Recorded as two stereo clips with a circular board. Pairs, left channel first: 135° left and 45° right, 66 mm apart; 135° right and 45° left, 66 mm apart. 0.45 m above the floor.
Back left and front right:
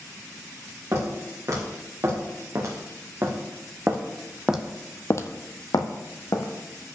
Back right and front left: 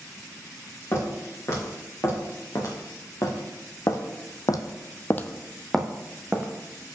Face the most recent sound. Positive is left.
turn(degrees=115)